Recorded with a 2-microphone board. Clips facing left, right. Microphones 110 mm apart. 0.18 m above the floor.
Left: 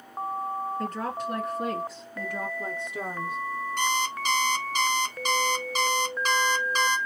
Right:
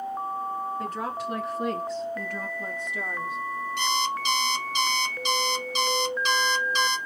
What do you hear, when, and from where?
0.8 s a woman speaking: 10° right (ahead or behind), 1.8 m; by 3.4 s 40° left (ahead or behind), 1.2 m
3.8 s an alarm clock: 45° left (ahead or behind), 1.1 m